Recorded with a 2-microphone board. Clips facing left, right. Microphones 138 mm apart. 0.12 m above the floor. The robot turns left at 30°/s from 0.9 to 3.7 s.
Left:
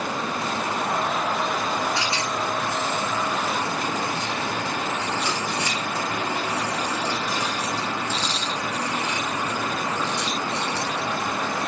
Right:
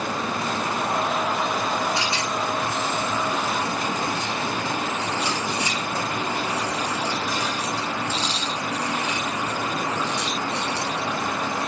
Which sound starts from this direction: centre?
A rattle, at 1.9 s.